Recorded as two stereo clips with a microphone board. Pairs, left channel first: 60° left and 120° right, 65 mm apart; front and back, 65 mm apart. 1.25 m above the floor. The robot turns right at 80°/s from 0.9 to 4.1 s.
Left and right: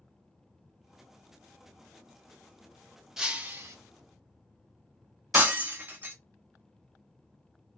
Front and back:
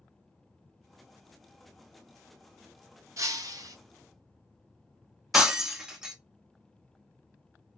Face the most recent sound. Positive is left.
turn(degrees=-115)